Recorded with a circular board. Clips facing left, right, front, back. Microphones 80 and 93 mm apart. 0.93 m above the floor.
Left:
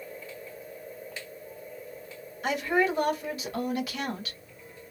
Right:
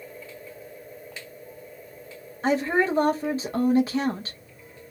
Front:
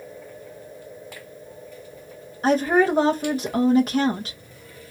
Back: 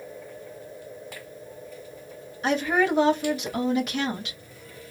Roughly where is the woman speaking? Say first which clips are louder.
Right 3 dB, front 5 dB; ahead right.